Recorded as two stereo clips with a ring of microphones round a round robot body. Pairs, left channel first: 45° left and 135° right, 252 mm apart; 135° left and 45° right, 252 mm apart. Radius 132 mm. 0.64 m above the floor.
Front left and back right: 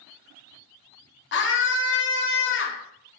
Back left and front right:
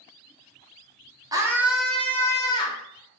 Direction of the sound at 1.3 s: 25° left.